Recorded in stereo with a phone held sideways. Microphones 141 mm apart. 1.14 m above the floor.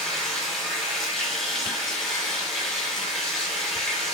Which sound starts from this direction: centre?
Running water, at 0.0 s.